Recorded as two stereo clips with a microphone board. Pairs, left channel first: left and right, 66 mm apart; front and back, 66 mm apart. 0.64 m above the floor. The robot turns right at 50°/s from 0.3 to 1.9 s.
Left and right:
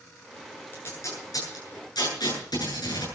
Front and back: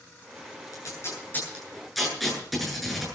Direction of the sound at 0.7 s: 35° left.